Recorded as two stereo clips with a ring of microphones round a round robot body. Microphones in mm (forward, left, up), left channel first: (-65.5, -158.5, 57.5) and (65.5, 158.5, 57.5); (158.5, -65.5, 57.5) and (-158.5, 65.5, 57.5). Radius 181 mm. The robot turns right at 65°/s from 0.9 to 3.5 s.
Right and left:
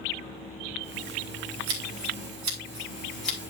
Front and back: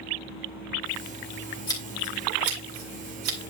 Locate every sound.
1.7 s scissors: 55° left, 2.5 m; by 3.4 s 165° left, 2.5 m